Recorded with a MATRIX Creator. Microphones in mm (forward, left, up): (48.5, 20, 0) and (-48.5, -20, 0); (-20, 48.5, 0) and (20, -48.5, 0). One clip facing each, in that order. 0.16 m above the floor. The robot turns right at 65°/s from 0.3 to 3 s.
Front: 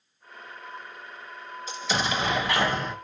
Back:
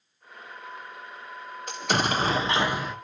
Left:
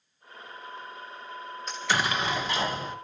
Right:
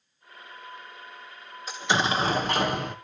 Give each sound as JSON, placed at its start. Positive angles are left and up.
{"t": 1.7, "sound": "an explosion", "azimuth_deg": -150, "distance_m": 0.8}